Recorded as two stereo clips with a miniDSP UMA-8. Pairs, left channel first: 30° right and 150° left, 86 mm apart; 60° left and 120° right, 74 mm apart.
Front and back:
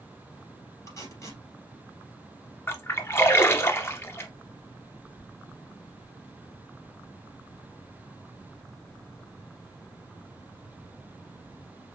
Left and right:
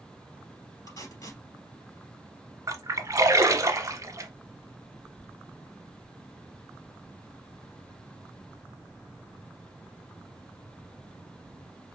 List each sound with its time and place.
0.9 s tape being pulled: 25° left, 3 m
2.7 s a splash: 85° right, 0.9 m